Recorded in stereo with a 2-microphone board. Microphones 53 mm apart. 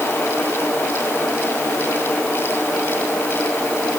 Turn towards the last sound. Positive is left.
No sound to turn to.